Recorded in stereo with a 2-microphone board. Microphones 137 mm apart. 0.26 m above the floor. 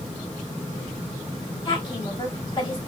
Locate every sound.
1.6 s a woman speaking: 35° left (ahead or behind), 1.5 m